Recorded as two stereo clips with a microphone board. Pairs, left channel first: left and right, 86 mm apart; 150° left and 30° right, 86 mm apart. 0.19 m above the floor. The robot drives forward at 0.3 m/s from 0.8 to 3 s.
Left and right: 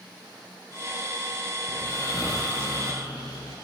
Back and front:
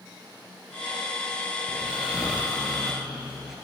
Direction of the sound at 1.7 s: 45° left.